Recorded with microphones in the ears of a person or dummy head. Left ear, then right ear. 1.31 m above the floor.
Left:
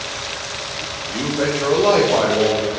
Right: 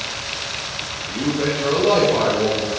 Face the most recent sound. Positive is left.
turn(degrees=55)  # may be behind; listen again after turning